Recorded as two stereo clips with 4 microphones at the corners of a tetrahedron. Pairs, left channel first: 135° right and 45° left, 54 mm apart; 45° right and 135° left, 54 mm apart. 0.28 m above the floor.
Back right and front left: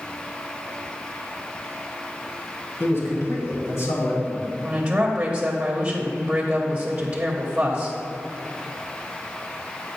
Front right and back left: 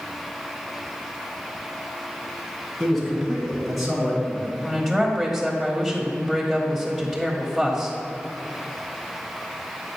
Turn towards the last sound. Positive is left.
turn(degrees=40)